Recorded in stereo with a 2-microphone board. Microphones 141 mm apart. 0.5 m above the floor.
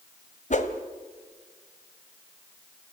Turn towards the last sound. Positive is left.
turn(degrees=60)  # may be behind; listen again after turning